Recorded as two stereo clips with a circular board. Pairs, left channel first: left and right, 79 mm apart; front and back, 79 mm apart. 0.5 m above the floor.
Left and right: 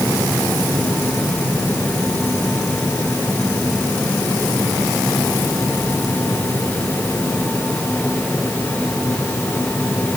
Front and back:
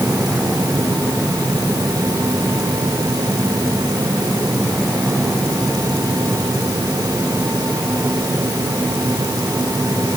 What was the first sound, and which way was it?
Only background noise.